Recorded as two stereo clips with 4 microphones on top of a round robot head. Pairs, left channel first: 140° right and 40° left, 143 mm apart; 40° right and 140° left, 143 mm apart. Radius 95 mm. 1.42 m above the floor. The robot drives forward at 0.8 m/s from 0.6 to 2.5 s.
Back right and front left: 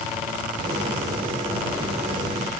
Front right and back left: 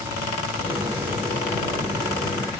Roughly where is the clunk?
No clunk in this recording.